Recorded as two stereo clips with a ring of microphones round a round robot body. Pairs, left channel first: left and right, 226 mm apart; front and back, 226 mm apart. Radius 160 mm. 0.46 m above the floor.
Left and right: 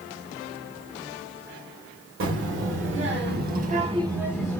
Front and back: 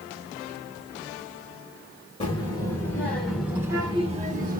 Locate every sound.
2.2 s a child speaking: 70° right, 1.4 m; by 4.6 s 170° left, 0.8 m